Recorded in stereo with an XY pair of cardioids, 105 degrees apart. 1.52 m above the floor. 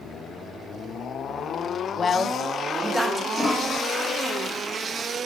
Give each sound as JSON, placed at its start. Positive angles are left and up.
{"t": 2.0, "sound": "a woman speaking", "azimuth_deg": 40, "distance_m": 0.6}
{"t": 3.3, "sound": "a toilet flushing", "azimuth_deg": 20, "distance_m": 1.3}